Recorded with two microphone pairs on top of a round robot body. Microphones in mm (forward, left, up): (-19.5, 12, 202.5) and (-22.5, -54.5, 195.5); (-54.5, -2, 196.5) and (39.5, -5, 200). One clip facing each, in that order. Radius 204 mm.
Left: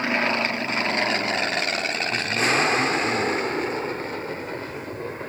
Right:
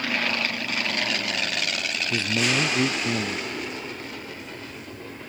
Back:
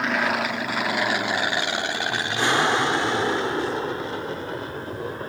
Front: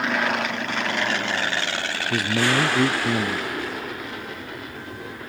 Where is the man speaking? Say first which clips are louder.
Left 1 dB, front 2 dB; 25° right.